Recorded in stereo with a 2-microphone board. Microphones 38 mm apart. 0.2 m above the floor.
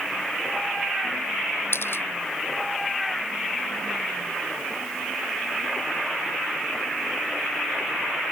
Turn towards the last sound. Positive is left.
turn(degrees=70)  # may be behind; listen again after turning